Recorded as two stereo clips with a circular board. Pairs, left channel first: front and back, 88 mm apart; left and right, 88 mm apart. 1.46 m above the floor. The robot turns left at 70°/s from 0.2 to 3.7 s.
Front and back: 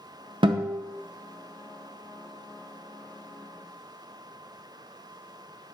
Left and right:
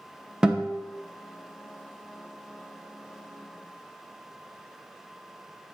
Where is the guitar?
170° right, 0.7 m; by 0.8 s 165° left, 0.7 m.